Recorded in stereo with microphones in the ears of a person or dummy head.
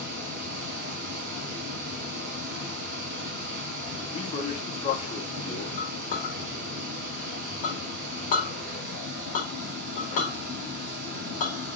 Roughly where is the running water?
Right.